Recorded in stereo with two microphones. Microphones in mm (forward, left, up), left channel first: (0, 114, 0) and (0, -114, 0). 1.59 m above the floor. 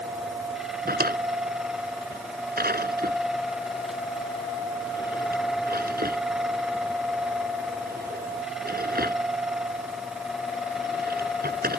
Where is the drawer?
40° right (ahead or behind).